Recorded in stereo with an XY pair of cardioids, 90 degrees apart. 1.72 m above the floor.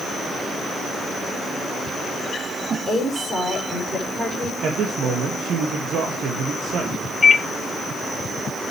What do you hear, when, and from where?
2.9 s a woman speaking: 30° right, 6 m
4.6 s a man speaking: 65° right, 2 m
7.2 s a microwave: 35° left, 0.8 m